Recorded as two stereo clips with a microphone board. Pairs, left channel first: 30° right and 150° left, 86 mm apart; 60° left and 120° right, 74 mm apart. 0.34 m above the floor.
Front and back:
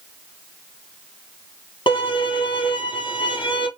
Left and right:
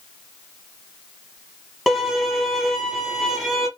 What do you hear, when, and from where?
1.9 s a violin: 30° right, 1.8 m